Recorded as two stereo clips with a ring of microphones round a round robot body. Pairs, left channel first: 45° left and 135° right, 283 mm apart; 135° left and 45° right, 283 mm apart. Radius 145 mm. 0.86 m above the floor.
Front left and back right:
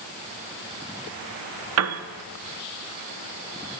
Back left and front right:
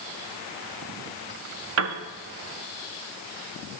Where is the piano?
90° right, 0.6 m.